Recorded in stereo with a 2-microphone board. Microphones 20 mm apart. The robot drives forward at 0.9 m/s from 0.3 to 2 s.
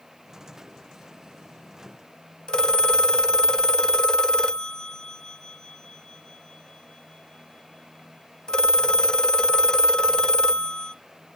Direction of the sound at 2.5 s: 40° left (ahead or behind).